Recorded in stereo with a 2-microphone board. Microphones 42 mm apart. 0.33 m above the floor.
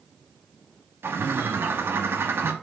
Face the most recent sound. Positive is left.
turn(degrees=-75)  # may be behind; listen again after turning